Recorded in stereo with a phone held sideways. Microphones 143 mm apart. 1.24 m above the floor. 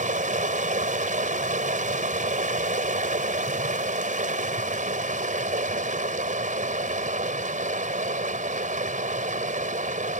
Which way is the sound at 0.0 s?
60° right (ahead or behind).